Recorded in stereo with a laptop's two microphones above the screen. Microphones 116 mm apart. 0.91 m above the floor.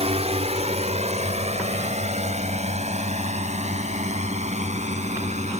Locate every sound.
0.0 s a drone: 65° right (ahead or behind); by 5.6 s 75° right (ahead or behind)